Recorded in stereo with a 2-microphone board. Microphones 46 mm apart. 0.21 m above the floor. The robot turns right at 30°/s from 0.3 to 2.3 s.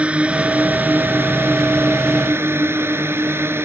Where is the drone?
30° right (ahead or behind); by 3.6 s 65° right (ahead or behind).